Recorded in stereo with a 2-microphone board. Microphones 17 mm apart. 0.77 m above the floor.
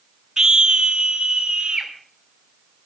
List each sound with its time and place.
0.4 s a scream: 35° right (ahead or behind), 0.8 m; by 1.9 s 65° right (ahead or behind), 2.5 m